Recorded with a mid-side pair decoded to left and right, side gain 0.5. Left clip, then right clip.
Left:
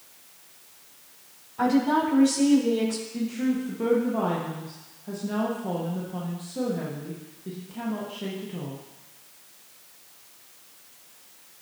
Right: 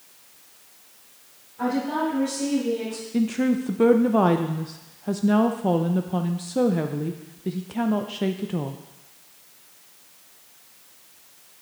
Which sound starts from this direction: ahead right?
A woman speaking, at 3.1 s.